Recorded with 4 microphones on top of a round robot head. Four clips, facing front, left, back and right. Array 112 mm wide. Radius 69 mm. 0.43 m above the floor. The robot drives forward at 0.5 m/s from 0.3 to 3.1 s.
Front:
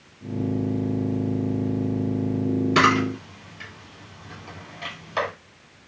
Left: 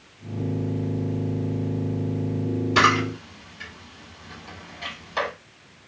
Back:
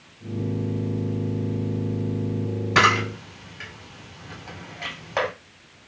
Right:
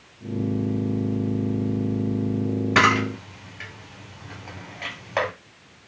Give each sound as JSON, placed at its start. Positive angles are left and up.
{"t": 2.8, "sound": "a camera shutter", "azimuth_deg": -125, "distance_m": 2.0}